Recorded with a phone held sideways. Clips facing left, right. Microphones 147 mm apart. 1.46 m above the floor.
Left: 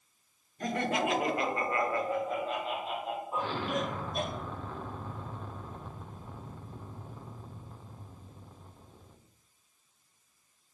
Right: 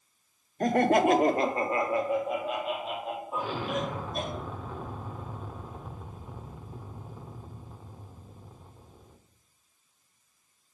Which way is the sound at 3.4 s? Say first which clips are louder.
Right 2 dB; 5° right (ahead or behind).